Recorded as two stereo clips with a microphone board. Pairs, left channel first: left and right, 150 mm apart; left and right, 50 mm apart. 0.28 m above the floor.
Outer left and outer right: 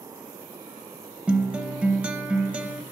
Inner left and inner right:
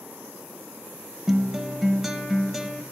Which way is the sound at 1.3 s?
10° right (ahead or behind).